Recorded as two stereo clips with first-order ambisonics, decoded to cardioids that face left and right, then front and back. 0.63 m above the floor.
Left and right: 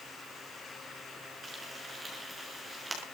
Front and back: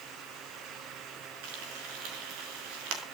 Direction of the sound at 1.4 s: 170° right.